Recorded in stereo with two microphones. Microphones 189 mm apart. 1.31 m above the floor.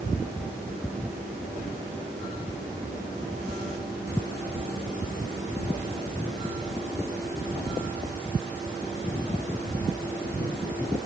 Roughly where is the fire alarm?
I don't hear a fire alarm.